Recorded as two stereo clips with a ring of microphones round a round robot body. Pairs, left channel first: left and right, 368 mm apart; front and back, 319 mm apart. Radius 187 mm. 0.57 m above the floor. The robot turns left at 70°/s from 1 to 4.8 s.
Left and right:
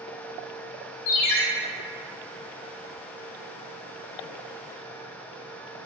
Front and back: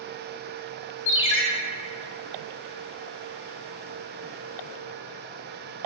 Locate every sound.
1.1 s a ringtone: 55° left, 1.2 m; by 1.4 s 30° left, 1.2 m